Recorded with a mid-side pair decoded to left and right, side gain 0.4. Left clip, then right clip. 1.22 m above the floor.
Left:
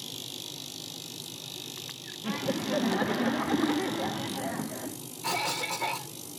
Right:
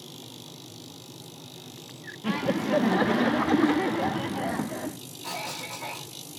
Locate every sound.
2.2 s laughter: 35° right, 0.7 m
5.2 s a cough: 55° left, 1.6 m